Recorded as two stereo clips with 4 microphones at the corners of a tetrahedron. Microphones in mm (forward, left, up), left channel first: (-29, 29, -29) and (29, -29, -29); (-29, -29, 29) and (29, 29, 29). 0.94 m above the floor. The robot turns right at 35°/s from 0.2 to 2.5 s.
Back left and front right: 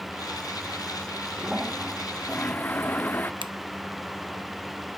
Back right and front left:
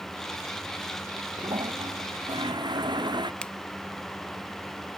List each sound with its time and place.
1.4 s a toilet flushing: 30° left; by 3.3 s 70° left
3.4 s a finger snap: 60° right